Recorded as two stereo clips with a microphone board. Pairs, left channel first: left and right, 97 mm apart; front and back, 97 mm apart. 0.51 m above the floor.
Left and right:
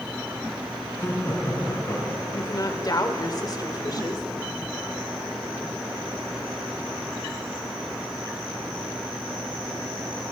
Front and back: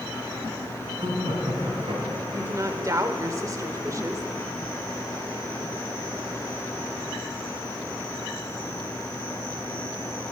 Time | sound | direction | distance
1.0 | laughter | 150° left | 4.5 m
2.3 | a woman speaking | 130° left | 1.2 m